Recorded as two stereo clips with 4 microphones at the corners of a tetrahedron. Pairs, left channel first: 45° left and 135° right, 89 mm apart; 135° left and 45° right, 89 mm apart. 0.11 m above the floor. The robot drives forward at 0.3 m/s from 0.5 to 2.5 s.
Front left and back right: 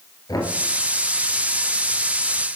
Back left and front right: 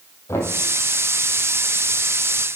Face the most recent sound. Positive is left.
turn(degrees=100)